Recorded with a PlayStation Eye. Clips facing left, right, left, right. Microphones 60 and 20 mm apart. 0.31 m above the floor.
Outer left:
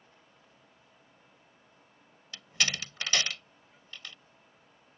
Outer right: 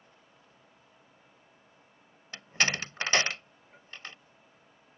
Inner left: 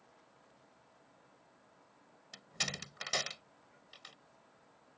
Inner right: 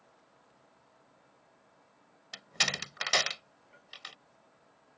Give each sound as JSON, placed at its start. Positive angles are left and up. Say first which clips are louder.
{"t": 2.3, "sound": "a door slam", "louder": "outer right 4 dB, inner right 8 dB", "side_deg": -40}